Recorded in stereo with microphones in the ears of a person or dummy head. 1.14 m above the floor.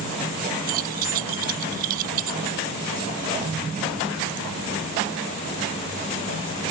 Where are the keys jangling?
50° right (ahead or behind).